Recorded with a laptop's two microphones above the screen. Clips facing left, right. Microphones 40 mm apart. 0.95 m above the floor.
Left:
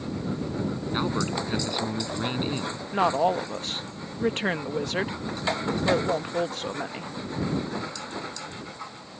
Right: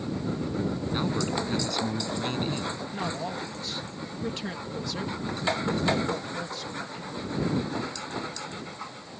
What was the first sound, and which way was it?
A man speaking, 20° left (ahead or behind).